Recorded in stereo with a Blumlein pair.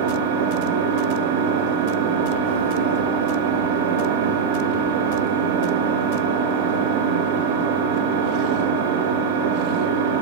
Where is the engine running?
50° right, 2.5 m.